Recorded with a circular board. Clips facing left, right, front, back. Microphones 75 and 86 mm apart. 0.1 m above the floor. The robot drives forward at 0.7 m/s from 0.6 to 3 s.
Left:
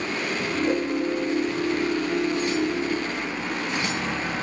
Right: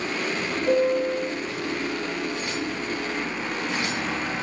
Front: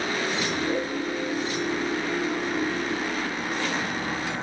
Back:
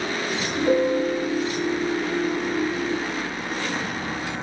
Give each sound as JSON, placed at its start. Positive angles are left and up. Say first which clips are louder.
{"t": 0.7, "sound": "a piano", "louder": "right 5 dB, back 7 dB", "azimuth_deg": -165, "distance_m": 4.5}